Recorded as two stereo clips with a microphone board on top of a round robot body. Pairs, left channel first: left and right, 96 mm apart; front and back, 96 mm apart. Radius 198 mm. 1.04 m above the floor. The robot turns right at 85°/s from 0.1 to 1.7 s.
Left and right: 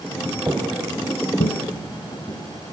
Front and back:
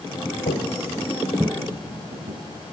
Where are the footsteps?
20° right, 1.8 m; by 2.7 s 160° left, 2.5 m.